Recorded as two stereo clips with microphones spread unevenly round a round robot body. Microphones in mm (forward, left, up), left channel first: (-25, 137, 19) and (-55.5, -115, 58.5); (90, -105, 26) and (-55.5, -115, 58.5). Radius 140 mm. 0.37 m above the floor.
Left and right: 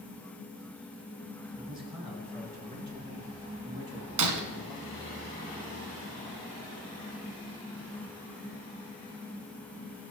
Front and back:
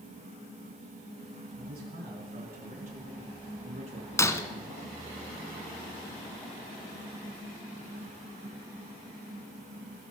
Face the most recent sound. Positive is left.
turn(degrees=-70)